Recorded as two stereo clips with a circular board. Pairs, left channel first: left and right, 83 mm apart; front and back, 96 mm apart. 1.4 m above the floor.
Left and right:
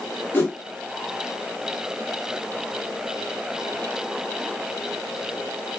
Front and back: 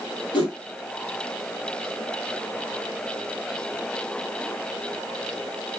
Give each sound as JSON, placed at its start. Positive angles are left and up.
{"t": 0.3, "sound": "a whoosh", "azimuth_deg": 25, "distance_m": 1.0}